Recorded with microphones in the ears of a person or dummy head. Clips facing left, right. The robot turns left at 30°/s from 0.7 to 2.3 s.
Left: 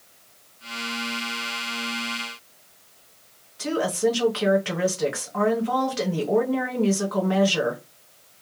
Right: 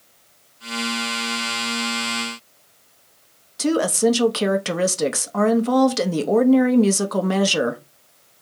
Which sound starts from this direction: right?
A woman speaking, at 3.6 s.